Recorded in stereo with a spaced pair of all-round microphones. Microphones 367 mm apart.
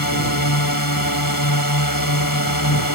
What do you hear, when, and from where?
0.0 s a drone: 75° left (ahead or behind)